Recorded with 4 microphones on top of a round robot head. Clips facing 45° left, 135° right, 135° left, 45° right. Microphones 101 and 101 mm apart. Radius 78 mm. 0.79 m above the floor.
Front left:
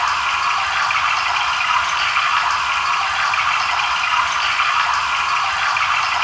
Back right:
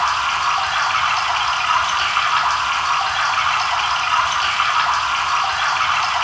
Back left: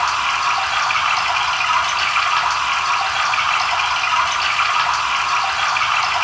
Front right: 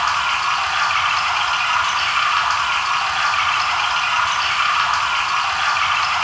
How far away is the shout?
I don't hear a shout.